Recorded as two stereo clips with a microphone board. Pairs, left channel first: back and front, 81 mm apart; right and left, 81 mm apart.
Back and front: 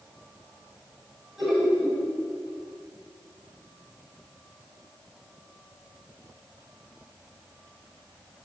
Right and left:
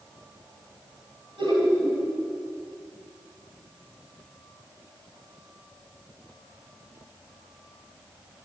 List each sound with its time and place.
1.4 s laughter: 90° left, 6 m